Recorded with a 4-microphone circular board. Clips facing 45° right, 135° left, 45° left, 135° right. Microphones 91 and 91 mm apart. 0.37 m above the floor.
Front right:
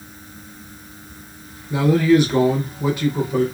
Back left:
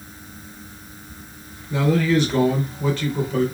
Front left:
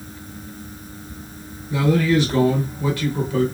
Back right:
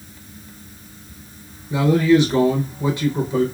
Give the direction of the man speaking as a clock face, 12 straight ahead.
3 o'clock.